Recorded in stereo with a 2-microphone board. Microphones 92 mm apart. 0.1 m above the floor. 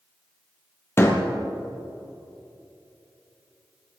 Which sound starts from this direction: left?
A door slam, at 1.0 s.